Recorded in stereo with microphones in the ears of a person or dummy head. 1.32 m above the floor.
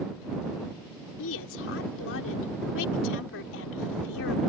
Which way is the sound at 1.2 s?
75° left (ahead or behind).